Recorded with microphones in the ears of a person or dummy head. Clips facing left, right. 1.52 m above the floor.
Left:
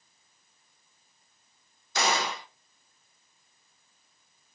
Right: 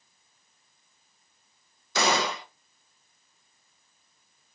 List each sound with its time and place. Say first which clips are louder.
1.9 s a gunshot: right 3 dB; 70° right (ahead or behind), 1.0 m